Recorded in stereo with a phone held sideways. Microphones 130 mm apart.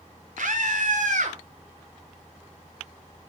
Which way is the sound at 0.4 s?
85° right.